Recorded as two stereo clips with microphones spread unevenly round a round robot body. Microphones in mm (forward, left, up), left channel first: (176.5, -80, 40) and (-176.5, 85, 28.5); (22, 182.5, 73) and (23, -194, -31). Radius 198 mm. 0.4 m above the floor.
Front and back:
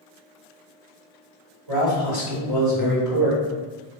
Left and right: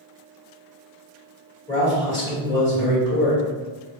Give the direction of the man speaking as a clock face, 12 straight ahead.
6 o'clock.